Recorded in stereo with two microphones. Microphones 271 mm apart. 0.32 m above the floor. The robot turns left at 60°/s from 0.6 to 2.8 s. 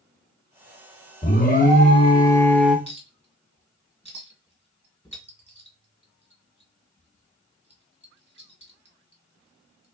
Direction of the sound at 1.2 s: 90° left.